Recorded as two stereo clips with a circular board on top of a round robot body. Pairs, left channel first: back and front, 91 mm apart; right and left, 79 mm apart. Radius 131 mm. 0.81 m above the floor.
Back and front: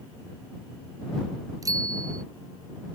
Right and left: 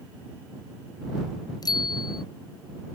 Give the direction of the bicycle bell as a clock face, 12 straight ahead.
2 o'clock.